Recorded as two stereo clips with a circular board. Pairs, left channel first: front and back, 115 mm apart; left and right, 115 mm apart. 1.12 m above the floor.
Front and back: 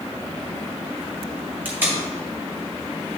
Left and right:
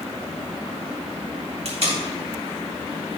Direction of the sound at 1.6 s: 105° right.